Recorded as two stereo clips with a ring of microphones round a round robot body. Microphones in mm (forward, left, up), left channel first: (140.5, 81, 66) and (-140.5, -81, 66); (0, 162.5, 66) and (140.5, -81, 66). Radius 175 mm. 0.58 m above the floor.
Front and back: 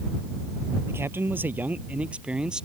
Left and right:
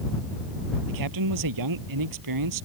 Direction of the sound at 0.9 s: 65° right.